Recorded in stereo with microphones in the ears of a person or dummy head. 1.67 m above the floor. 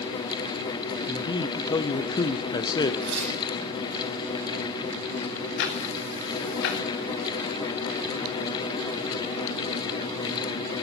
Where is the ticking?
60° left (ahead or behind), 1.9 m.